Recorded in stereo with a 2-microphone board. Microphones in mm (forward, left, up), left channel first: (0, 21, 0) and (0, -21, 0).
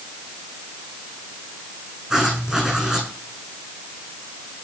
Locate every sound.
2.1 s writing: 20° right (ahead or behind), 8.5 m